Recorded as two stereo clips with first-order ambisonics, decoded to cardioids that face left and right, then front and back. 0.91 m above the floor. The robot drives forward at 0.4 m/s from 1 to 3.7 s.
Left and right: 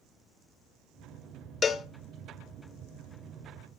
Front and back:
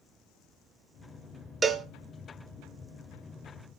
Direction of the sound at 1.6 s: 125° left.